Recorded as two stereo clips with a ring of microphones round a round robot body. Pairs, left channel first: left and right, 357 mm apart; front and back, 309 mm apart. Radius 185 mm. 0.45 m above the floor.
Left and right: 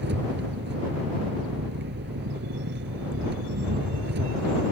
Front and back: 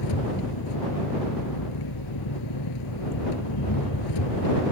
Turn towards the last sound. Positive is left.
turn(degrees=-30)